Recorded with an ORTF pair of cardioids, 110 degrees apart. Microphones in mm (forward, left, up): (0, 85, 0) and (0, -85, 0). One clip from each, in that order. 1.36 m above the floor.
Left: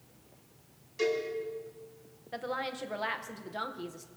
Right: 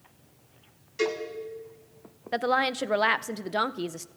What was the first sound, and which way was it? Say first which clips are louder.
A cowbell: right 2 dB; 30° right.